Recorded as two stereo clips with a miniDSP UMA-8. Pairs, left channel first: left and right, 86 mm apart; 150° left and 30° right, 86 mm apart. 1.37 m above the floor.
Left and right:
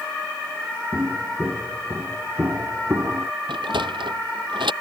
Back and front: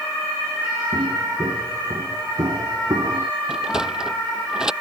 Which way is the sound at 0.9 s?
25° right.